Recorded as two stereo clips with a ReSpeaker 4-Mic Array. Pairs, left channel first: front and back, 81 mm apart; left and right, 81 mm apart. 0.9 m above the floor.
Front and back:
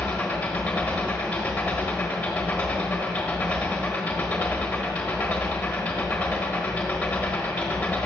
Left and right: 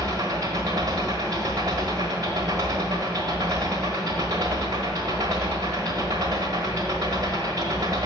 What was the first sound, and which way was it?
An engine running, 75° right.